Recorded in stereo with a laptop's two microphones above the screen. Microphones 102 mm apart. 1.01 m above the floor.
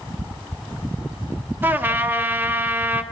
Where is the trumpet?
20° right (ahead or behind), 1.1 m.